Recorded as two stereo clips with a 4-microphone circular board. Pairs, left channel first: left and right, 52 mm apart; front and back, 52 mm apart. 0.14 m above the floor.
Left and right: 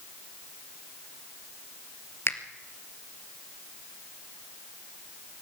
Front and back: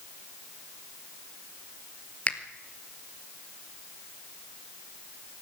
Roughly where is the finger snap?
Ahead left.